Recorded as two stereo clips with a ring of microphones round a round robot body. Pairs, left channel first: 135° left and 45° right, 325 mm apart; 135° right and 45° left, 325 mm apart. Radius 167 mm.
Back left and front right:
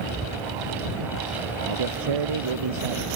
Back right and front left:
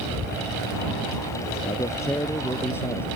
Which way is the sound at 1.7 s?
55° right.